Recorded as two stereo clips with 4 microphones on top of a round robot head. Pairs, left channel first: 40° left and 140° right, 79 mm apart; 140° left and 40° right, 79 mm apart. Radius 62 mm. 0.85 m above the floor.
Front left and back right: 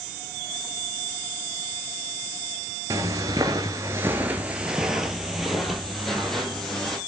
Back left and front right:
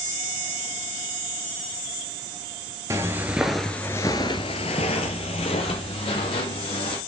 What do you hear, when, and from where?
2.9 s footsteps: 90° right, 1.0 m; by 7.0 s 125° left, 2.5 m